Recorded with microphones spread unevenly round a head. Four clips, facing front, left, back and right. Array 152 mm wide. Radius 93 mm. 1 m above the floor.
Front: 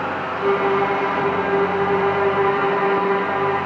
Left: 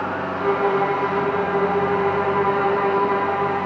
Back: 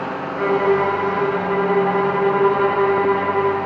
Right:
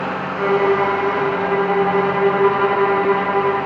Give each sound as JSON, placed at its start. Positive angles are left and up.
{"t": 0.4, "sound": "a violin", "azimuth_deg": -170, "distance_m": 1.1}